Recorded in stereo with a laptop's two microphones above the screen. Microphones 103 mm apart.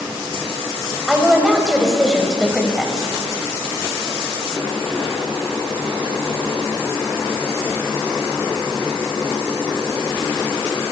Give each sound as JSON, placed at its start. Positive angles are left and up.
{"t": 1.1, "sound": "a woman speaking", "side_deg": 0, "distance_m": 6.5}